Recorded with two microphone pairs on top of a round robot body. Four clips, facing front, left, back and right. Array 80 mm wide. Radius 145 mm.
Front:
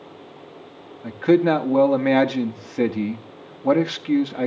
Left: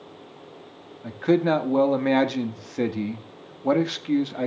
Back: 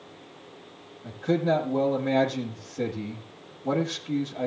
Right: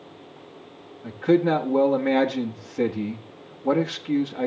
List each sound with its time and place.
1.0 s a man speaking: 30° left, 2 m